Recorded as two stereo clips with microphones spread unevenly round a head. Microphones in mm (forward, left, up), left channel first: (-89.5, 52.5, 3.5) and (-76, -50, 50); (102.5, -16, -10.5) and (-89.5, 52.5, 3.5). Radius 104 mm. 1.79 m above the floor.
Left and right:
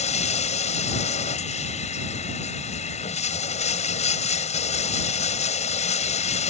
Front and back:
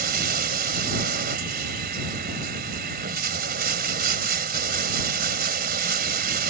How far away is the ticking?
No ticking in this recording.